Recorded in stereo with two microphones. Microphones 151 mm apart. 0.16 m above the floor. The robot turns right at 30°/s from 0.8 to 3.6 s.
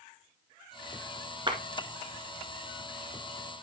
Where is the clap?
30° right (ahead or behind), 2 m.